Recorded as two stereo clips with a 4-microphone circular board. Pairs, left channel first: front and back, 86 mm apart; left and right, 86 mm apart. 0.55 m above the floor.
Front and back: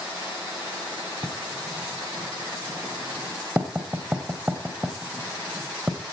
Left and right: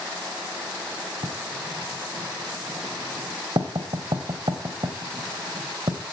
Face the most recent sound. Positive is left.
turn(degrees=-110)